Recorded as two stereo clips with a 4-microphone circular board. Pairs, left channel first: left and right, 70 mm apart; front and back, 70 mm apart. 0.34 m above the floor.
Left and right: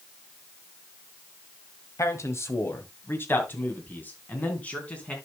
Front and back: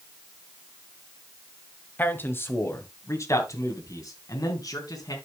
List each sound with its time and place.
2.0 s a man speaking: 60° left, 1.7 m; by 5.2 s 20° left, 3 m